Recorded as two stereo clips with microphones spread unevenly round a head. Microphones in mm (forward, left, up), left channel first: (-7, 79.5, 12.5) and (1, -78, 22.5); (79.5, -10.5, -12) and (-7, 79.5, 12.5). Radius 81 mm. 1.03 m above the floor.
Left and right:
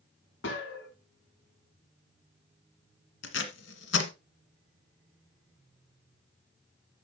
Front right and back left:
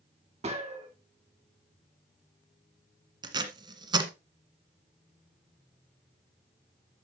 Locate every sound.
0.4 s a gunshot: 95° left, 2.5 m
3.2 s tape being pulled: 90° left, 1.7 m